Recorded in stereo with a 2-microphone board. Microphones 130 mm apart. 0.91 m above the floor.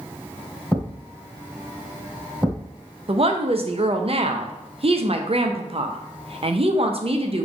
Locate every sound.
0.7 s a thud: 5° left (ahead or behind), 2 m
3.1 s a woman speaking: 50° right (ahead or behind), 0.5 m